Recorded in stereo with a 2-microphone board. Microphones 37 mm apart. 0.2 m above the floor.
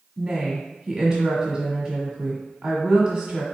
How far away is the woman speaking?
About 1.7 m.